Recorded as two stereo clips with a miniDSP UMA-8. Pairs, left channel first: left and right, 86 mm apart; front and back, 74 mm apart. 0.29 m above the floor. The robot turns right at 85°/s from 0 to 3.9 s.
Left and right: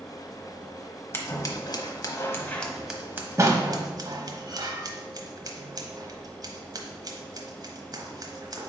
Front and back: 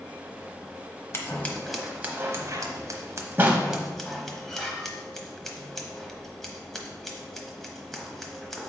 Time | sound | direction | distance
1.1 | scissors | 40° left | 1.0 m